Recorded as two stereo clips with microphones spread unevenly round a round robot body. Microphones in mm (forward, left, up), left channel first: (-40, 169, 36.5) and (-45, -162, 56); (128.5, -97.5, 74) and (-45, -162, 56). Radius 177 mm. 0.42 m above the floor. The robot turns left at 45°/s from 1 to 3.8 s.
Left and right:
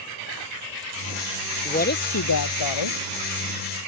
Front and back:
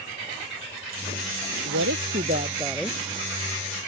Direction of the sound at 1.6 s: 160° left.